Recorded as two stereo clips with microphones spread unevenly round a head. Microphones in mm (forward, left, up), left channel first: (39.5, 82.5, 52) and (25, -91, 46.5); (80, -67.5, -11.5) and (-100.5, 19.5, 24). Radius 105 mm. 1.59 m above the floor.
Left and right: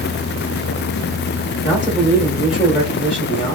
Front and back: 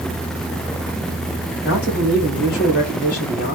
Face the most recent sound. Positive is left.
turn(degrees=25)